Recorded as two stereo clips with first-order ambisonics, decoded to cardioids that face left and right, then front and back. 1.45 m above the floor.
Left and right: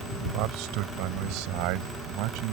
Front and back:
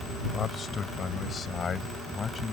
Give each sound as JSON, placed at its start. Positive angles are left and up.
{"t": 0.3, "sound": "a man speaking", "azimuth_deg": -65}